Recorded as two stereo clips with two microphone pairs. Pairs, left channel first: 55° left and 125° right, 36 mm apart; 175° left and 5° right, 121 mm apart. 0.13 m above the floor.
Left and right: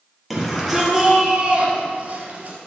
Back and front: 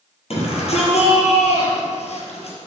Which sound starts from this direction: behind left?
A shout, at 0.3 s.